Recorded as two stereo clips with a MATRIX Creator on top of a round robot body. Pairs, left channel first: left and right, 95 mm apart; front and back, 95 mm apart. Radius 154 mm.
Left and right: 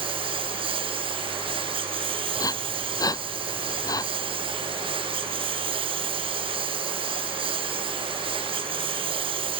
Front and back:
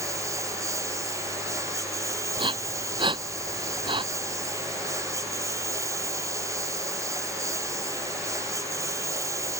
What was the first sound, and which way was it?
A lawn mower, 120° right.